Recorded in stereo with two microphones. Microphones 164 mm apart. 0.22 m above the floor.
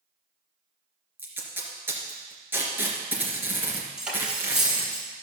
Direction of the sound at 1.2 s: 10° right (ahead or behind).